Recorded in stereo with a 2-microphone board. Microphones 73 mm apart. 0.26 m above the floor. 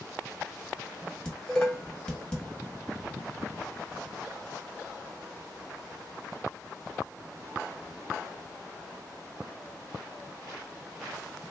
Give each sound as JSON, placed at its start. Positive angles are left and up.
{"t": 1.2, "sound": "dishes clattering", "side_deg": 10, "distance_m": 1.0}